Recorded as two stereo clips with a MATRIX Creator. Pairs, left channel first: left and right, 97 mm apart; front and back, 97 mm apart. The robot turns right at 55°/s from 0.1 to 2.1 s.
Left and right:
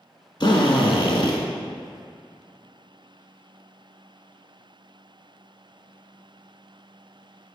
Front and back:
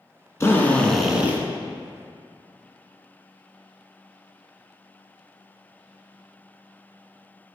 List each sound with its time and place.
0.4 s a drill: 60° left, 1.0 m; by 1.4 s 110° left, 1.0 m